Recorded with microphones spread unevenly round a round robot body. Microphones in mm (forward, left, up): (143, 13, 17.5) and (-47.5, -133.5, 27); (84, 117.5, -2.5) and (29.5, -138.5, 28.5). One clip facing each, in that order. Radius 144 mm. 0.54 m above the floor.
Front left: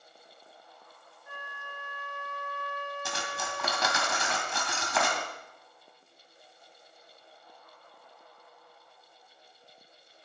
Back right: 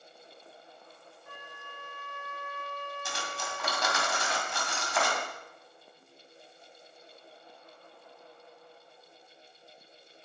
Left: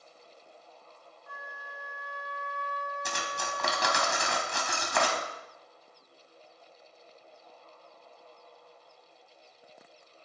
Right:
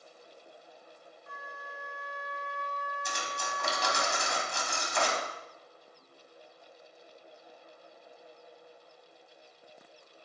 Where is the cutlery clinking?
55° left, 2.5 m.